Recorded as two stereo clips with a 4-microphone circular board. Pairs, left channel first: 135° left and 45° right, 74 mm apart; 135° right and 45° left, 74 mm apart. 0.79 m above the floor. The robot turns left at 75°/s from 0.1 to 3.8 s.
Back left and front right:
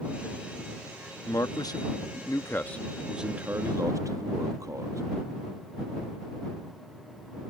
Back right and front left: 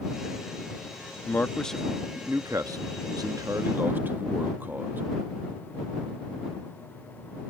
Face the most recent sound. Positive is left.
turn(degrees=-15)